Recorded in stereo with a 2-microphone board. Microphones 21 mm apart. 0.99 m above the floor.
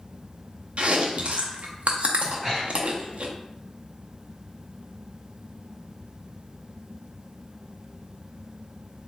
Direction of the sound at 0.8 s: 65° right (ahead or behind).